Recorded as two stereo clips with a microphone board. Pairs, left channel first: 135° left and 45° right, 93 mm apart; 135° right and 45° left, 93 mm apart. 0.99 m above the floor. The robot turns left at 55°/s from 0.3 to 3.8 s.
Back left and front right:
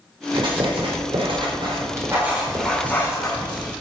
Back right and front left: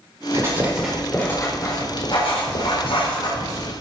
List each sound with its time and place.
0.3 s writing: 10° right, 4 m; by 3.7 s 160° left, 4 m